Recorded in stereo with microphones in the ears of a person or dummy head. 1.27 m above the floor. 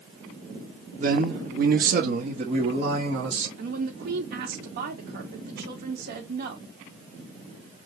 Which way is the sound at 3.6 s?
55° right (ahead or behind).